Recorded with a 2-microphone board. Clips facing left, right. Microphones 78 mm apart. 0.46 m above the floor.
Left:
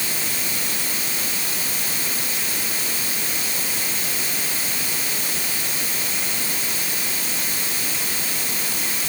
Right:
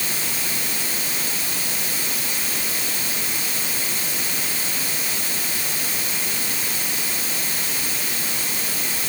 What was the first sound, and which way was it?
Only background noise.